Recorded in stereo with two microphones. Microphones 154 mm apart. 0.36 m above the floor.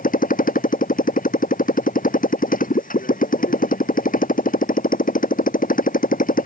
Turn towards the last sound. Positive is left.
turn(degrees=60)  # may be behind; listen again after turning